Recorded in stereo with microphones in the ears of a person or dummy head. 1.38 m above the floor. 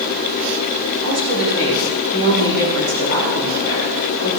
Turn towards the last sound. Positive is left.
turn(degrees=-55)  # may be behind; listen again after turning